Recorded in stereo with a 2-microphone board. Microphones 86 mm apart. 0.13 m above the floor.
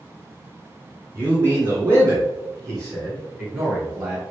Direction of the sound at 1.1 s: 25° right (ahead or behind).